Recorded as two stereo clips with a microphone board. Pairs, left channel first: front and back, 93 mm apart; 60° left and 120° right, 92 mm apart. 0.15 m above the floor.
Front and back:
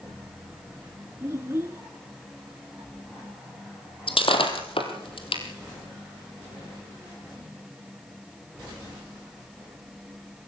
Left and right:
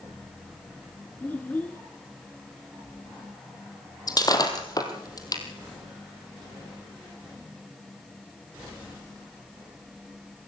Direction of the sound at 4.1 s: 15° left.